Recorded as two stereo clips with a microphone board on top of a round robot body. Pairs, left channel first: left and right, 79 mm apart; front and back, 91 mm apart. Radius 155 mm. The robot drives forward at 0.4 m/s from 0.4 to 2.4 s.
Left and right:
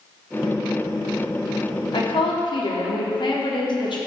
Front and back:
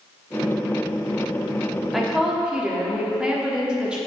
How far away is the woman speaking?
About 1.4 m.